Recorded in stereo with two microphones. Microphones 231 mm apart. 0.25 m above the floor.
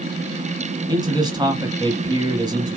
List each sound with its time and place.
0.9 s a man speaking: 20° right (ahead or behind), 1.5 m